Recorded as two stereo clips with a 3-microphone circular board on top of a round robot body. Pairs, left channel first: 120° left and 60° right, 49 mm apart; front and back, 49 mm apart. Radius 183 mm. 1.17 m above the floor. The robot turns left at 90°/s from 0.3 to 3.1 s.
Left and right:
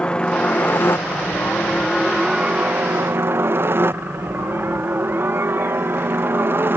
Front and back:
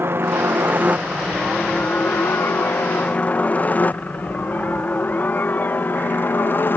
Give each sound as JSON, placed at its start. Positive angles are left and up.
{"t": 0.0, "sound": "a helicopter", "azimuth_deg": 180}